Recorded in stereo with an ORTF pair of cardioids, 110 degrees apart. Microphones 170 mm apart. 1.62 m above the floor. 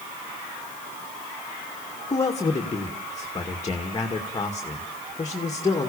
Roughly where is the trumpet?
I don't hear a trumpet.